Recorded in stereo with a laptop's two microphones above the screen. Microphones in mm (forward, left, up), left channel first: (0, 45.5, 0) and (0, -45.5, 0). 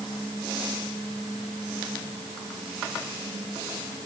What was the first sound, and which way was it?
Only background noise.